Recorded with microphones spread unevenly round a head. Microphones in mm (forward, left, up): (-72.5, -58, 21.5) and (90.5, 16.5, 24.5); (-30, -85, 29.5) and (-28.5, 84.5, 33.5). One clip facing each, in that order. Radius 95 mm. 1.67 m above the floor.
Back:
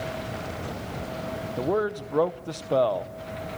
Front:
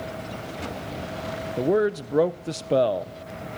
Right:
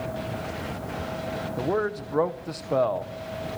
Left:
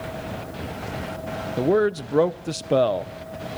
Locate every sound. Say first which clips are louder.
1.6 s a man speaking: front 5 dB, left 8 dB; 70° left, 0.6 m